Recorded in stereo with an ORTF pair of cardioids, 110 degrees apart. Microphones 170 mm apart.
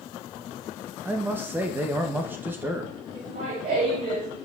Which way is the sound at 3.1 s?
55° right.